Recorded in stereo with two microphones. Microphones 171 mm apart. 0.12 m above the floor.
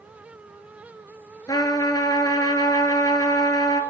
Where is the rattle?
No rattle in this recording.